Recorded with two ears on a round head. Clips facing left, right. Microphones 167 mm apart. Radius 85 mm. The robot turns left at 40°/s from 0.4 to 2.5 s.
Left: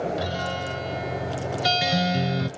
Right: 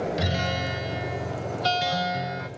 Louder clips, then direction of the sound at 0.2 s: Even; 150° right.